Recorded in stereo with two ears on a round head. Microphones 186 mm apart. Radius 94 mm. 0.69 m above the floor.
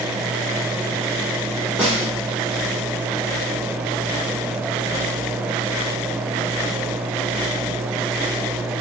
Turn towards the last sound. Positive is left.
turn(degrees=5)  # may be behind; listen again after turning